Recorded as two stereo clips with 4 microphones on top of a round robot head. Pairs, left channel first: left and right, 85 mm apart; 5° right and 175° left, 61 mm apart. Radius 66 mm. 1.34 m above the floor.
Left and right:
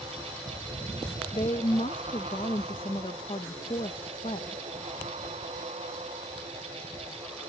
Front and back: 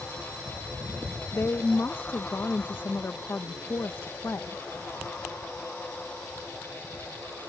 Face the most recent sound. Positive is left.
turn(degrees=50)